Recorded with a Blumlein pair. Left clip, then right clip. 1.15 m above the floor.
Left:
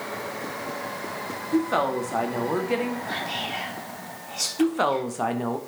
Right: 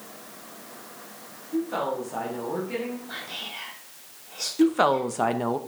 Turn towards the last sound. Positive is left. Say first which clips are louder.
# right 3 dB
turn(degrees=-10)